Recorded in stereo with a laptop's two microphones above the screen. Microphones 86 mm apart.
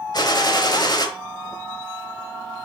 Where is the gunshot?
55° left (ahead or behind), 1.1 m.